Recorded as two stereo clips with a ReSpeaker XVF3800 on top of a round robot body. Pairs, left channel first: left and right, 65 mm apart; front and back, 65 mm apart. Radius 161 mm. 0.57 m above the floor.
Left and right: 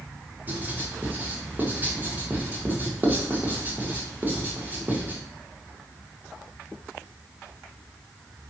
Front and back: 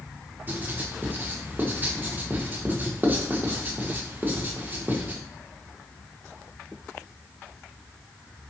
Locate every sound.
0.5 s writing: 135° right, 1.3 m